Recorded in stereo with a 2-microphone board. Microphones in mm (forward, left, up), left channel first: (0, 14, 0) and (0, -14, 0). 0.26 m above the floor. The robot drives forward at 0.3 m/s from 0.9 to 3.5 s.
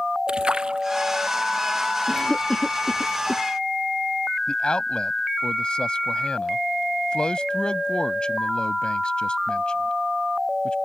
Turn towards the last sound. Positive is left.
turn(degrees=35)  # may be behind; listen again after turning